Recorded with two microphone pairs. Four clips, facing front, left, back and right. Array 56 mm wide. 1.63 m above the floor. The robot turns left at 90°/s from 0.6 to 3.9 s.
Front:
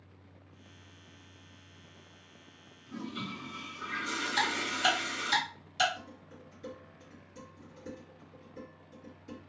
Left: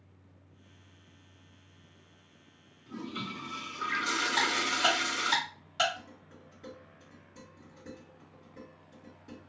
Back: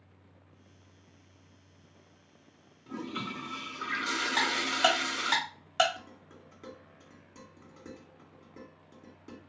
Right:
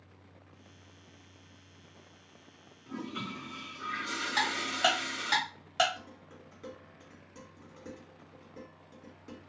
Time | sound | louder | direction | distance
2.9 | a toilet flushing | even, back 3 dB | 145° right | 0.5 m
4.4 | ticking | right 1 dB, back 3 dB | 155° right | 1.8 m
6.0 | dishes clattering | right 1 dB, front 1 dB | 145° right | 1.8 m